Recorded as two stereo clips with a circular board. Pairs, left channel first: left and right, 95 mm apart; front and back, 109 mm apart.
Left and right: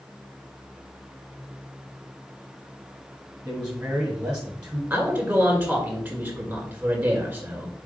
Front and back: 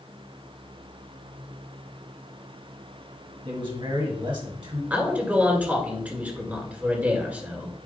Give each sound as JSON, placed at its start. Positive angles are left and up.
{"t": 3.5, "sound": "a man speaking", "azimuth_deg": -170, "distance_m": 1.9}
{"t": 4.9, "sound": "a man speaking", "azimuth_deg": -130, "distance_m": 1.6}